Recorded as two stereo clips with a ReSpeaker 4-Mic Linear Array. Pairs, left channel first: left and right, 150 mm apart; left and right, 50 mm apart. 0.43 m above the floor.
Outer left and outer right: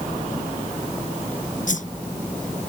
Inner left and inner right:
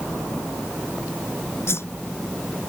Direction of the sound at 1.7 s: 65° left (ahead or behind).